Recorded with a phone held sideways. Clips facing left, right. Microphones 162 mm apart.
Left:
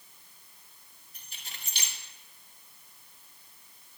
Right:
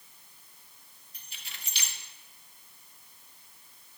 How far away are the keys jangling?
About 2.5 m.